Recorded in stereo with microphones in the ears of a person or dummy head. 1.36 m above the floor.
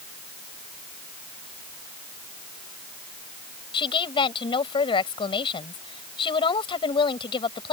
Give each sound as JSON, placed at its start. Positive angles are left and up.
{"t": 3.7, "sound": "a woman speaking", "side_deg": 25}